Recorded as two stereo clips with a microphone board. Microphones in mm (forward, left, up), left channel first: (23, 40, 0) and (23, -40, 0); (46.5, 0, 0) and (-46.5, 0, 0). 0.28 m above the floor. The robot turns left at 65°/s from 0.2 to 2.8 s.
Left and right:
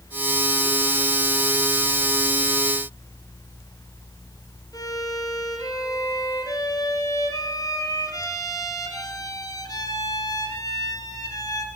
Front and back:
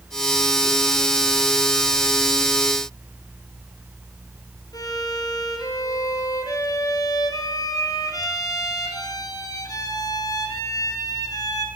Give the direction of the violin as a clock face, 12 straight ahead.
10 o'clock.